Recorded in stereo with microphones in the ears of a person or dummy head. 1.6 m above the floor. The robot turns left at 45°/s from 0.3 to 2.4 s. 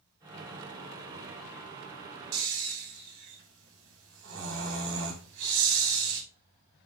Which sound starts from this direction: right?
Snoring, at 2.3 s.